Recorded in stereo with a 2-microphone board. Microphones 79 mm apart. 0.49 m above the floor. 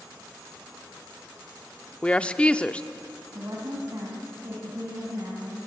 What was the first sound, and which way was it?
A woman speaking, 15° left (ahead or behind).